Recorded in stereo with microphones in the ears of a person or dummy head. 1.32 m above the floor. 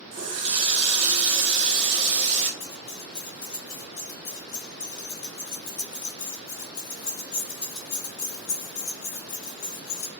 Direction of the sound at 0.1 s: 30° right (ahead or behind).